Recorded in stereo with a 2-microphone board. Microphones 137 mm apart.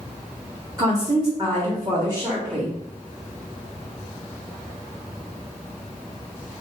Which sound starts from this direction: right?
A woman speaking, at 0.8 s.